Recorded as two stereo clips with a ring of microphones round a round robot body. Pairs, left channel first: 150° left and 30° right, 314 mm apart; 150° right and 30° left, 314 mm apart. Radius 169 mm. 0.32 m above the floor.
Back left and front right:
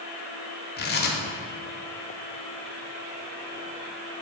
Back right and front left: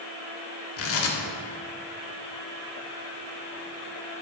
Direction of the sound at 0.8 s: 165° right.